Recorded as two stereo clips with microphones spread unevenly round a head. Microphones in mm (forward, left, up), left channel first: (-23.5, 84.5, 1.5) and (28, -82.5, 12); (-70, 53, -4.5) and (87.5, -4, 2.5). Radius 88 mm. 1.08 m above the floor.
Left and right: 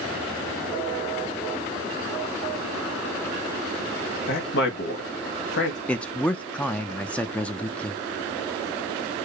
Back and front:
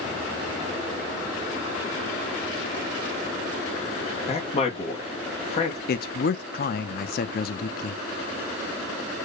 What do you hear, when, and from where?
4.3 s a man speaking: 110° left, 1.8 m
5.9 s a man speaking: 175° right, 0.5 m